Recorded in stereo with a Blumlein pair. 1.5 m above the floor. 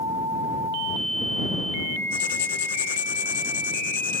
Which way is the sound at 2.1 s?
60° left.